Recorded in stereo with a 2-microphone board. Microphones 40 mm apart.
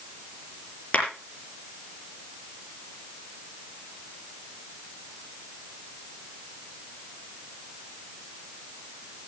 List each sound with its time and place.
0.9 s a clap: 40° left (ahead or behind), 5.5 m